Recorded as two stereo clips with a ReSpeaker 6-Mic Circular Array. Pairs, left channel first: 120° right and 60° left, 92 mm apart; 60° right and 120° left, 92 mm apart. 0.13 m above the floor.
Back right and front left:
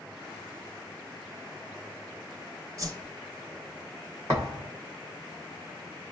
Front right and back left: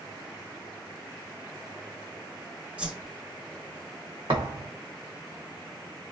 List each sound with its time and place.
2.8 s a whoosh: 55° left, 0.8 m
4.3 s a thud: 110° left, 1.2 m